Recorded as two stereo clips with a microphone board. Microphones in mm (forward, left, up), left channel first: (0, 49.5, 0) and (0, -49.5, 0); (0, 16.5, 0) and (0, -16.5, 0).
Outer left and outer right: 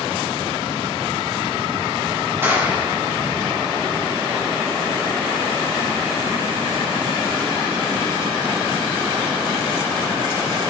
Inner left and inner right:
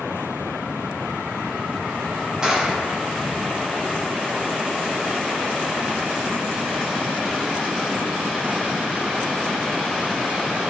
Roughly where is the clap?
Right.